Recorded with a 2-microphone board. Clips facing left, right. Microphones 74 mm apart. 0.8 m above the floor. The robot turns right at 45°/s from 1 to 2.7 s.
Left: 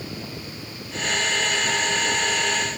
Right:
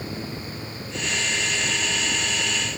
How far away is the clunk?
No clunk in this recording.